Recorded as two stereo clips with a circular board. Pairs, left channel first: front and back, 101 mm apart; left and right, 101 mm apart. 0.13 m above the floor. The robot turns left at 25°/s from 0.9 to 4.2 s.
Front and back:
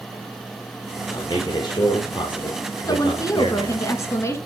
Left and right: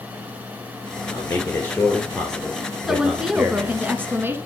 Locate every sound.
1.1 s a man speaking: 35° left, 2 m; by 3.8 s 30° right, 2 m
2.9 s a woman speaking: 5° right, 1.3 m; by 4.4 s 40° right, 1.3 m